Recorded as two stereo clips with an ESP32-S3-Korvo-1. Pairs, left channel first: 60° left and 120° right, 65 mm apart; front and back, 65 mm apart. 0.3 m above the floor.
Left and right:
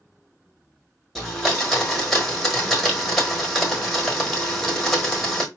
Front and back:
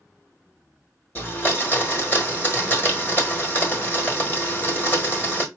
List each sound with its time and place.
1.1 s a blender: 25° right, 1.3 m